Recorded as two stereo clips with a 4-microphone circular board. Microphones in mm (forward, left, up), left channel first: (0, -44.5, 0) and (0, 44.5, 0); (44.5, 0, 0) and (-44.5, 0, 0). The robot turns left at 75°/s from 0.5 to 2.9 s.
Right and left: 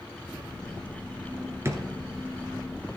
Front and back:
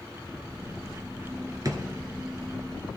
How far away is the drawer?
About 1.3 m.